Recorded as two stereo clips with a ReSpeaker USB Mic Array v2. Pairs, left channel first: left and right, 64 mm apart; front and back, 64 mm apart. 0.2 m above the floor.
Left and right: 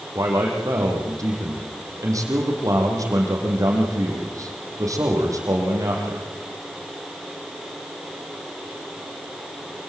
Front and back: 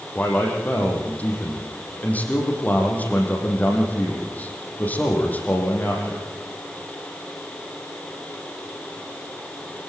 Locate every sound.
0.1 s a man speaking: 65° right, 7.5 m